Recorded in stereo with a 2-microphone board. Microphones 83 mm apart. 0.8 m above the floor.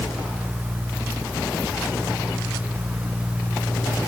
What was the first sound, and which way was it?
Only background noise.